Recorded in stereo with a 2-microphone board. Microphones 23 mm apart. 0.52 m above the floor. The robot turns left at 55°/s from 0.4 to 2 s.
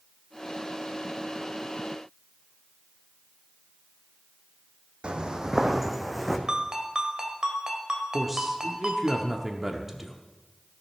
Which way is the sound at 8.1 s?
20° right (ahead or behind).